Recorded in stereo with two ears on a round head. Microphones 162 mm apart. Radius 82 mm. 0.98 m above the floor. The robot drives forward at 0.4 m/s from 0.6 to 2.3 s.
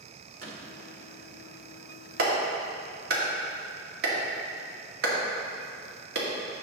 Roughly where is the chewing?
No chewing in this recording.